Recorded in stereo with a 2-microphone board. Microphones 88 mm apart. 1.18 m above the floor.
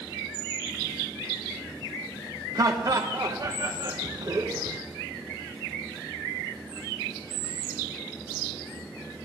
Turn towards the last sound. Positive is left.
turn(degrees=-45)  # may be behind; listen again after turning